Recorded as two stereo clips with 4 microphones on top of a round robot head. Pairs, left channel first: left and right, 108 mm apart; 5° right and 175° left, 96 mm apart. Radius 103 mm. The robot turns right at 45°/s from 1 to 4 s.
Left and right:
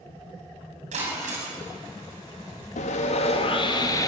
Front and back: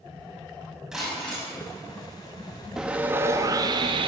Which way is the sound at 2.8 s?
90° left.